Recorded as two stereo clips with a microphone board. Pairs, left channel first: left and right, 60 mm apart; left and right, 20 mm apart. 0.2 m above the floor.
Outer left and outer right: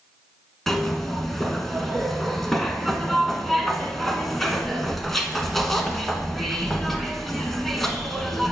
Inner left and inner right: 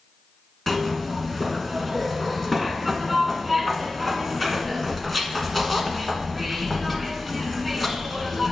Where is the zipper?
5° left (ahead or behind), 1.2 m.